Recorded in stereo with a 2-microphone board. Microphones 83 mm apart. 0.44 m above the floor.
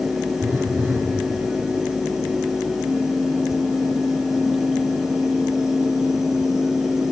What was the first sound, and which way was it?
A phone buzzing, 35° right (ahead or behind).